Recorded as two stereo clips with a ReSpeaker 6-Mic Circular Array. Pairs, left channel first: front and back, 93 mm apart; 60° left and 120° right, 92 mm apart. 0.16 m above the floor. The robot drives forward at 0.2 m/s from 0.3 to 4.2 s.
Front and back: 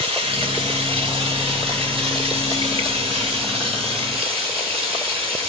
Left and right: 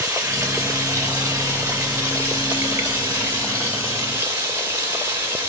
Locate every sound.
0.0 s running water: 175° left, 1.2 m